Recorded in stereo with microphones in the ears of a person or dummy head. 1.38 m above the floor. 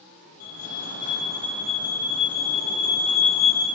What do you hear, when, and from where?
0.4 s a fire alarm: 45° left (ahead or behind), 3.5 m